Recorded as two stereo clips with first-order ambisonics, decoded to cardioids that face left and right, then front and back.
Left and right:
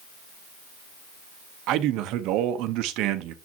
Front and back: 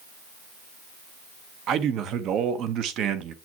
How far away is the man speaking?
About 1.0 m.